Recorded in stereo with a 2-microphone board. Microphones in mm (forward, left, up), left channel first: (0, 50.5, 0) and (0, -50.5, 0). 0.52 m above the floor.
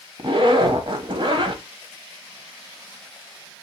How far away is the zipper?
About 1.0 m.